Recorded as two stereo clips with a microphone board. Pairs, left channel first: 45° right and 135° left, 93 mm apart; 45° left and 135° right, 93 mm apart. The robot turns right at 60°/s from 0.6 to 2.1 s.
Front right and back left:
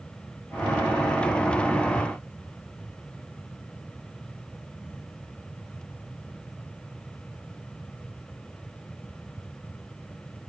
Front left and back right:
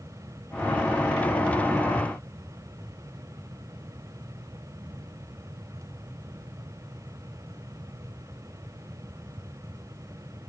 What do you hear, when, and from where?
Only background noise.